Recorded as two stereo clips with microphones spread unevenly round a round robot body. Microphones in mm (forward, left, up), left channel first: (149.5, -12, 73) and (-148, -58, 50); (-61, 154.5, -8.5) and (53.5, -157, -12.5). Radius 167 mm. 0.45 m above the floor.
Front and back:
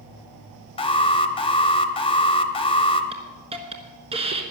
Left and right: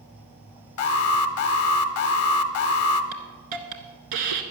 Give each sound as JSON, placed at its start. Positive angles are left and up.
{"t": 0.8, "sound": "an alarm", "azimuth_deg": 80, "distance_m": 0.6}
{"t": 3.1, "sound": "a hiss", "azimuth_deg": -100, "distance_m": 1.2}